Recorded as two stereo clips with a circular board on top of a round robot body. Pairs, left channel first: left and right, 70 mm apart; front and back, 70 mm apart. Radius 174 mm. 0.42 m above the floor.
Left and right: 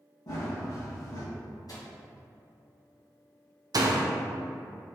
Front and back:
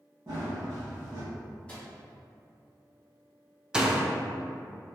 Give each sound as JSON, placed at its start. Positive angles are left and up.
{"t": 0.3, "sound": "running footsteps", "azimuth_deg": 125, "distance_m": 1.5}
{"t": 1.7, "sound": "a microwave", "azimuth_deg": 75, "distance_m": 1.7}
{"t": 3.7, "sound": "a door slam", "azimuth_deg": -100, "distance_m": 0.7}